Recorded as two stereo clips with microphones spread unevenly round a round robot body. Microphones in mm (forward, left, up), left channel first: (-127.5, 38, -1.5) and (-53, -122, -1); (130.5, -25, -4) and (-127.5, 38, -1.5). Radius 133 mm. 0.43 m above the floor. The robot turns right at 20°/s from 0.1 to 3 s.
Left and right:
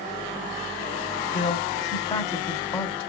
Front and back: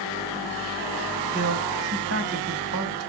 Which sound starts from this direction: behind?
A man speaking, at 1.3 s.